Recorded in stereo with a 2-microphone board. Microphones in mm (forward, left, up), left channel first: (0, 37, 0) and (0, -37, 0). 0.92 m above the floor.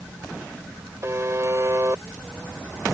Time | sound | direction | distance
1.0 | a buzzer | 45° right (ahead or behind) | ?